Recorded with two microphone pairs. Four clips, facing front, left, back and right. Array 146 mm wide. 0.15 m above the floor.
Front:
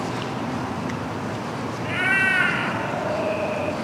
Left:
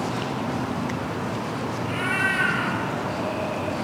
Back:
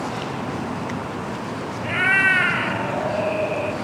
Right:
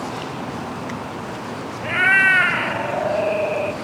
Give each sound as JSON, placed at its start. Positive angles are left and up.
{"t": 1.8, "sound": "a cat meowing", "azimuth_deg": -95, "distance_m": 0.7}